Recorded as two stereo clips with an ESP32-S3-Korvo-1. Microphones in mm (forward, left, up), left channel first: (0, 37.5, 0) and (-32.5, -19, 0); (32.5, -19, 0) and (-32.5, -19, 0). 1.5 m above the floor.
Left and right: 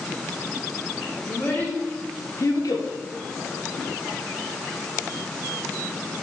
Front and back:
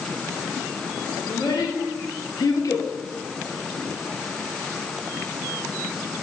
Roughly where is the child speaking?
Ahead.